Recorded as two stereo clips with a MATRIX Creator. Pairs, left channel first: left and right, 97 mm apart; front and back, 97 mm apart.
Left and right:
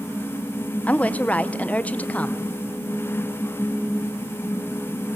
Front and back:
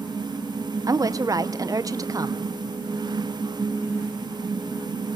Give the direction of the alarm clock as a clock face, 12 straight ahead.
No alarm clock in this recording.